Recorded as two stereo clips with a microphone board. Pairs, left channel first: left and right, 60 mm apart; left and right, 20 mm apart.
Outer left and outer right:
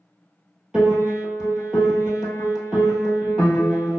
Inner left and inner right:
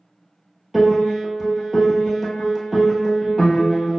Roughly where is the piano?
Centre.